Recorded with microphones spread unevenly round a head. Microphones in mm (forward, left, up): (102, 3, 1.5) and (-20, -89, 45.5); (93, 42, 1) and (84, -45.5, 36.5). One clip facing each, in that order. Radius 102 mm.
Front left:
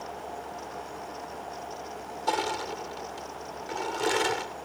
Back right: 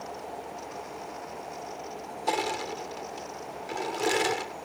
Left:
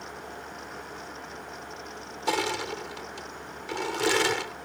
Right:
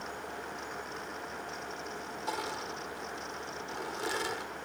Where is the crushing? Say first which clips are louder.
Even, left 9 dB; 140° left.